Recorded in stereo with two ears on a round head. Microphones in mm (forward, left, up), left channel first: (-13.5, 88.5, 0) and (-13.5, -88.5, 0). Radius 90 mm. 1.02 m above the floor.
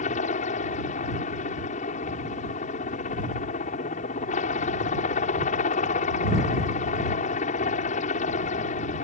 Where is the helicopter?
35° left (ahead or behind).